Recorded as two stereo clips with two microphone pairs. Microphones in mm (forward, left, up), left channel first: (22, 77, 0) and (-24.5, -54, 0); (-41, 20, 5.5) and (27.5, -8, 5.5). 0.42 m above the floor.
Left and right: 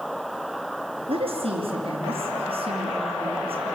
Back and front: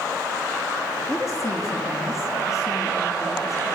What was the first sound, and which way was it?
A woman speaking, 155° right.